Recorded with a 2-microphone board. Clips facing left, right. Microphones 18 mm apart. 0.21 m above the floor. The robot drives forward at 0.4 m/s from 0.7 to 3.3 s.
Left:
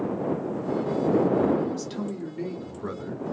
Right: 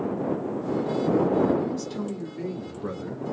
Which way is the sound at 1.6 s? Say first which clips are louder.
Even; 10° left (ahead or behind).